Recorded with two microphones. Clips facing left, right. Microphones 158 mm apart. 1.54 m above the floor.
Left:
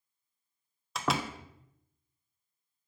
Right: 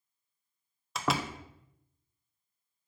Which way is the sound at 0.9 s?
Centre (ahead or behind).